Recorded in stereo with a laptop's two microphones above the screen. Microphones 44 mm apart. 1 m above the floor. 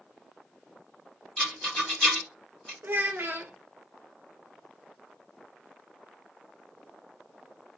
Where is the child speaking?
55° right (ahead or behind), 0.8 m.